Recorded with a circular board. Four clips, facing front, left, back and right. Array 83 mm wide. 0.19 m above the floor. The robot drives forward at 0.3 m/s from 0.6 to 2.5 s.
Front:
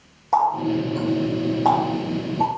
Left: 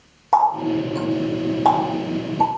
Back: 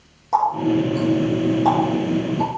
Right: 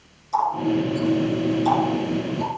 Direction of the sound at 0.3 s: 75° left.